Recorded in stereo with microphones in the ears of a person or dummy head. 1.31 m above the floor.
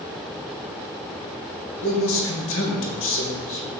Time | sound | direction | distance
1.8 | a man speaking | 70° left (ahead or behind) | 1.5 m